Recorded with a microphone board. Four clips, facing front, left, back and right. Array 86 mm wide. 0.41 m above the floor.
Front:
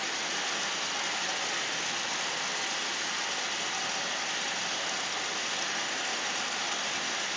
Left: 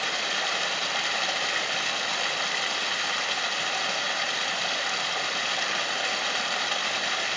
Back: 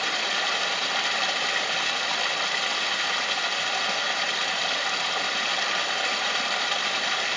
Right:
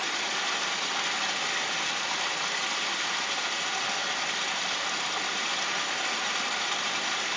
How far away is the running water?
About 1.4 m.